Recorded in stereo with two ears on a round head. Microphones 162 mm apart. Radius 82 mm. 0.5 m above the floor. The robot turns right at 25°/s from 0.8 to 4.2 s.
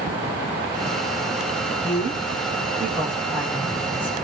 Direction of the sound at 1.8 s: 45° right.